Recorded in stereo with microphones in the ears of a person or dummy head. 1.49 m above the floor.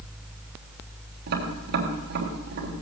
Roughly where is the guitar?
No guitar in this recording.